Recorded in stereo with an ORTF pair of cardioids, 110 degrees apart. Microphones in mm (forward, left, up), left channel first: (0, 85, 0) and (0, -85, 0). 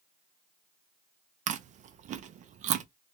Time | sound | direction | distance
1.5 | chewing | 50° right | 0.6 m